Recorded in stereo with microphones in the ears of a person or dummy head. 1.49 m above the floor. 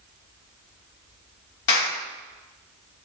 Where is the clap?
55° left (ahead or behind), 2.5 m.